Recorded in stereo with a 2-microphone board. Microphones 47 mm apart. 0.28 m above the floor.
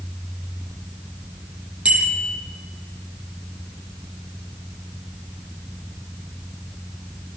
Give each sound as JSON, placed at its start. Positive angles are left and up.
{"t": 1.9, "sound": "a bicycle bell", "side_deg": -20, "distance_m": 6.0}